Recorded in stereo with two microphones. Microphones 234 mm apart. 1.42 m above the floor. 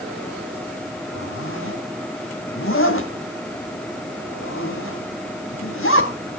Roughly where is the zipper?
Left.